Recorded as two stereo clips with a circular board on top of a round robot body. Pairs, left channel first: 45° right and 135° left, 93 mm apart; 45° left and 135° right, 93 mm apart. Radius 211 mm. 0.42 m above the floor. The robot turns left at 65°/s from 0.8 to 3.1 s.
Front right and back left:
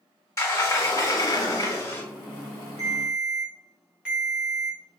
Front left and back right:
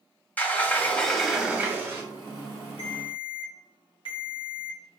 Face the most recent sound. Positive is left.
turn(degrees=60)